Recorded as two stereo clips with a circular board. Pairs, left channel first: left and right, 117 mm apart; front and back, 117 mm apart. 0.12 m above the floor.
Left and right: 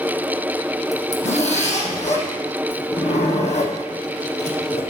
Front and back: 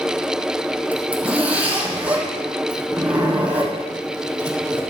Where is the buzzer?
No buzzer in this recording.